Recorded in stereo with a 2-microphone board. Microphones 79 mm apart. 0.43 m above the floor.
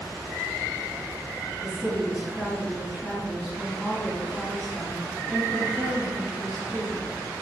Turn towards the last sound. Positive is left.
turn(degrees=0)  # may be behind; listen again after turning